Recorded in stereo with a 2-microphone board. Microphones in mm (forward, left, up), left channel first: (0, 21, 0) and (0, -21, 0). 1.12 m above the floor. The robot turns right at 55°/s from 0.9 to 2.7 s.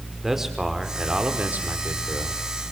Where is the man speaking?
170° right, 4 m; by 2.4 s 85° right, 4 m.